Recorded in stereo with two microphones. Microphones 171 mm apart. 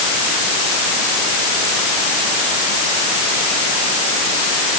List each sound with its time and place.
Only background noise.